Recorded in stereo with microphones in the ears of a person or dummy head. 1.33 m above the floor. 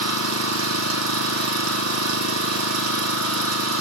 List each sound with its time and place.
0.0 s an engine running: 85° right, 1.4 m